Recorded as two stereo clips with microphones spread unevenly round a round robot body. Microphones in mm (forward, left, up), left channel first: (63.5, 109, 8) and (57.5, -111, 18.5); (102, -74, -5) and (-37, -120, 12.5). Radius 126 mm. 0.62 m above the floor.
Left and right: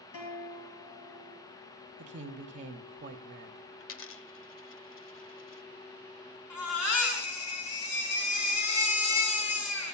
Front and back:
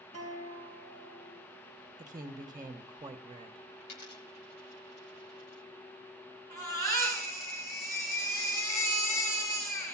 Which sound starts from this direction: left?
A guitar, at 0.1 s.